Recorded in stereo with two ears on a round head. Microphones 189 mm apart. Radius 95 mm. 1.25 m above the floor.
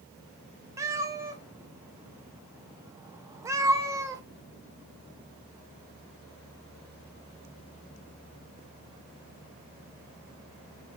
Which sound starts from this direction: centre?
A cat meowing, at 0.8 s.